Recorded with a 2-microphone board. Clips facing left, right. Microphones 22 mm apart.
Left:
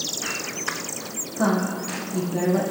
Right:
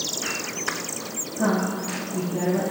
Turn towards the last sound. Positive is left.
turn(degrees=40)  # may be behind; listen again after turning